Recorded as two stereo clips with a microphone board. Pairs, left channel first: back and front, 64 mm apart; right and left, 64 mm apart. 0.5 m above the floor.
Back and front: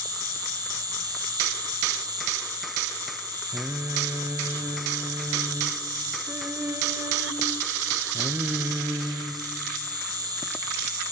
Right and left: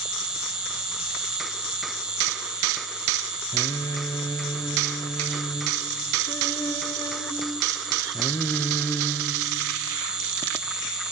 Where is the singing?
50° right, 0.9 m.